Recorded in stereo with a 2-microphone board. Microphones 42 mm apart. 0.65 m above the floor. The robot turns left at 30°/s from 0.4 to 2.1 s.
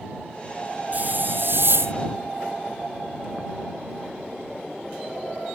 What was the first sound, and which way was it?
A hiss, 45° right.